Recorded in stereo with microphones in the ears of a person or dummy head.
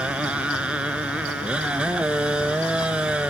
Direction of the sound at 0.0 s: 5° right (ahead or behind).